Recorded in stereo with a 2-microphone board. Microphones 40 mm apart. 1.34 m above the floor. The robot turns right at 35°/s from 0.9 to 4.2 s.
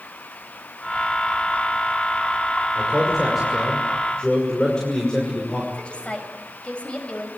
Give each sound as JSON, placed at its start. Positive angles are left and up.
{"t": 2.8, "sound": "a man speaking", "azimuth_deg": -25, "distance_m": 5.5}
{"t": 5.7, "sound": "a woman speaking", "side_deg": 25, "distance_m": 6.5}